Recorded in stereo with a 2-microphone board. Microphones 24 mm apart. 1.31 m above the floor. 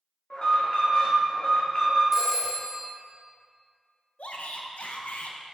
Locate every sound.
0.3 s an alarm: 45° left (ahead or behind), 2 m
2.1 s a phone ringing: 10° right (ahead or behind), 1.3 m
4.2 s a shout: 65° left (ahead or behind), 0.9 m